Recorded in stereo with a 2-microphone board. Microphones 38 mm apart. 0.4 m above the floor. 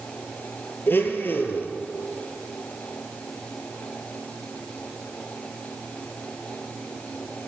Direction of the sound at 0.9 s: 80° left.